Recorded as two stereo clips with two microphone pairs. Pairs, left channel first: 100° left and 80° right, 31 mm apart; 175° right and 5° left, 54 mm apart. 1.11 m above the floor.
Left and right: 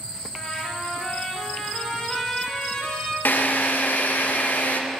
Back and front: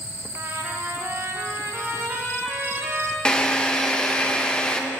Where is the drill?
110° left, 0.6 m.